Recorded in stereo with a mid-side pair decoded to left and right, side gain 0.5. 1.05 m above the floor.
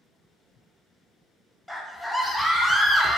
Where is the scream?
Straight ahead, 0.8 m.